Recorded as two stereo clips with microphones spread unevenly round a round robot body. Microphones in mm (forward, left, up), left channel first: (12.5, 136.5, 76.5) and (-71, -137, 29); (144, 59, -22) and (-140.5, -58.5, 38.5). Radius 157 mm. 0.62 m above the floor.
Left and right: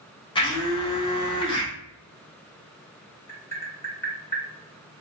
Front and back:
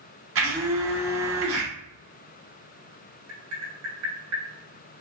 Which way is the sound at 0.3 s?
150° left.